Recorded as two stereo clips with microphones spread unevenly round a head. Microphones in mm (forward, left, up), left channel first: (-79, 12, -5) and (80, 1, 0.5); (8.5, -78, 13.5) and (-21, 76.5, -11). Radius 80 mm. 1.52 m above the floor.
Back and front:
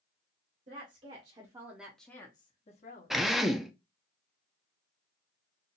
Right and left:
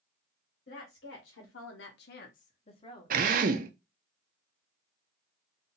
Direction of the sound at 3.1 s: 85° left.